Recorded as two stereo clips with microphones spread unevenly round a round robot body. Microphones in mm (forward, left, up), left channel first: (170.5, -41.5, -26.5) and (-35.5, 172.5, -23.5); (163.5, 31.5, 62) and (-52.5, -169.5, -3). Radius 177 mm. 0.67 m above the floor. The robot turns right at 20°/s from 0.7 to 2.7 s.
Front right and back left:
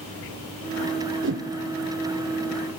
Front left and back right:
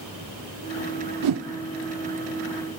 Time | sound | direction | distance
1.2 | a whoosh | 170° right | 0.6 m